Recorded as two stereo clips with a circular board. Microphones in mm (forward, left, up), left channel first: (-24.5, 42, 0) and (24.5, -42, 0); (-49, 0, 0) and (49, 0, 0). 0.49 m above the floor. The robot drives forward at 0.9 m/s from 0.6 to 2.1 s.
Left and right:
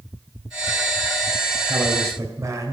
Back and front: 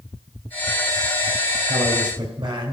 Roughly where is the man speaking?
Ahead.